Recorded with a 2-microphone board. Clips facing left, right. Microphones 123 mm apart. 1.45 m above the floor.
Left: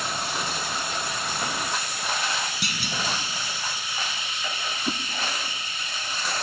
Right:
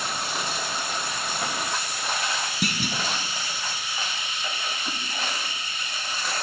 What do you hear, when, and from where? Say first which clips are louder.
2.6 s a clunk: right 3 dB; 45° right (ahead or behind), 2 m
4.9 s a whoosh: left 5 dB; 30° left (ahead or behind), 1.1 m